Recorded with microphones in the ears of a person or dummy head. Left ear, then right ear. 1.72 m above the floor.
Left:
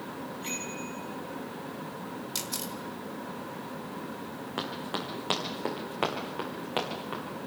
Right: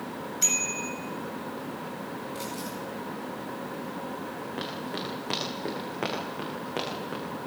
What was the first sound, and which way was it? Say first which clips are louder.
A bicycle bell: right 11 dB; 80° right.